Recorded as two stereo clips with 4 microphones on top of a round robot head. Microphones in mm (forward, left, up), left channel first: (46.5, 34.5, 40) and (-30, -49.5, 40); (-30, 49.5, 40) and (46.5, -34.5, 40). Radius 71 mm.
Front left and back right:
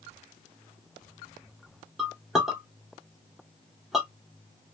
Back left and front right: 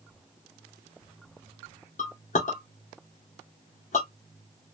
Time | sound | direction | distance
2.0 | a clink | 140° left | 1.3 m